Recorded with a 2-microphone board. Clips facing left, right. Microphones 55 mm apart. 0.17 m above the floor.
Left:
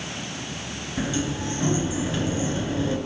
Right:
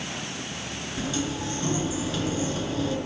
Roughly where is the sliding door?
Left.